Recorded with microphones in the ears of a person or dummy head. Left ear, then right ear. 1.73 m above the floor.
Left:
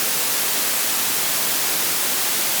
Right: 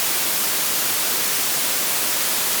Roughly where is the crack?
No crack in this recording.